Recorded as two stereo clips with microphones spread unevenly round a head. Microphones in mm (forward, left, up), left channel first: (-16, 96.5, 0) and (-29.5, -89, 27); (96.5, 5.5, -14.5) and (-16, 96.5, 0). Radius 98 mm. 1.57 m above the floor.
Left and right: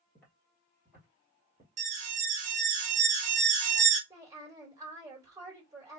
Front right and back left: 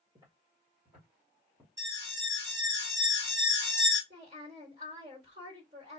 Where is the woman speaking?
165° right, 1.8 m.